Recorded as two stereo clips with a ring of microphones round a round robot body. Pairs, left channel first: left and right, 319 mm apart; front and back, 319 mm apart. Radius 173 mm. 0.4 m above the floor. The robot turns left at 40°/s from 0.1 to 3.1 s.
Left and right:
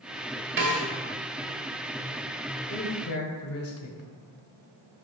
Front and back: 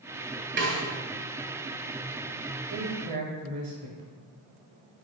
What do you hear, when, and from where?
0.6 s a snare drum: 135° right, 2 m; by 0.8 s 145° right, 2 m
2.7 s a man speaking: 135° left, 1.6 m; by 4.1 s 120° left, 1.6 m